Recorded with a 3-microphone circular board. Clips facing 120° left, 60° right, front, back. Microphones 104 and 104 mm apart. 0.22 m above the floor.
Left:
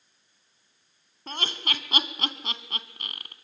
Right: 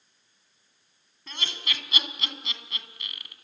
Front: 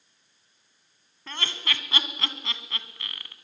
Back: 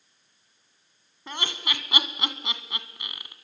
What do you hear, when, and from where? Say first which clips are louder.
1.3 s laughter: left 4 dB, back 1 dB; 115° left, 1.8 m